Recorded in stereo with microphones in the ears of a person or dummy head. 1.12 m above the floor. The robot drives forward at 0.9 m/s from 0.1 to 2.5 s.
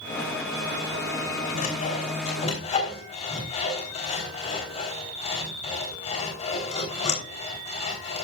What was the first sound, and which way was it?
Sawing, 45° left (ahead or behind).